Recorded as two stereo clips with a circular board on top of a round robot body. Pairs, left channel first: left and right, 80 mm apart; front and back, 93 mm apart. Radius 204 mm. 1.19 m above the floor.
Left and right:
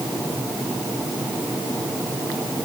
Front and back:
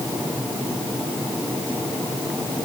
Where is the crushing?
No crushing in this recording.